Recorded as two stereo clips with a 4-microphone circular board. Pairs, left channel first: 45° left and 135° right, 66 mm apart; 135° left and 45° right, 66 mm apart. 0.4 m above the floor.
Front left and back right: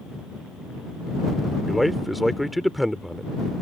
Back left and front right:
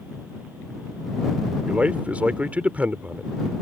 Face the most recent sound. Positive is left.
turn(degrees=-45)